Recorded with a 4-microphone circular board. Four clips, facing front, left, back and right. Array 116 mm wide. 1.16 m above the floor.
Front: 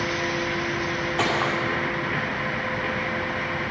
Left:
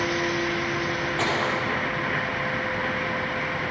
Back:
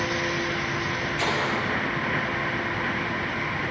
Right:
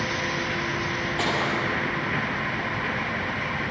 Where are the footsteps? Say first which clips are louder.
Even, front 3 dB; straight ahead, 5.5 m.